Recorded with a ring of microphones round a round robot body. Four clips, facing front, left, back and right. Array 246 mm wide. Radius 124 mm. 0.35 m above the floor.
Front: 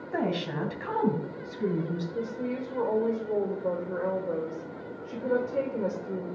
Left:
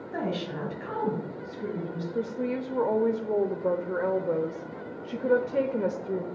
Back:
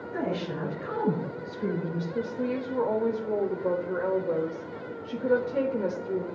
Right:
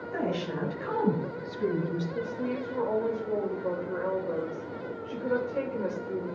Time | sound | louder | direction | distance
0.1 | a woman speaking | even, front 1 dB | 15° left | 2.5 m
2.1 | a woman speaking | left 2 dB, back 5 dB | 105° left | 0.9 m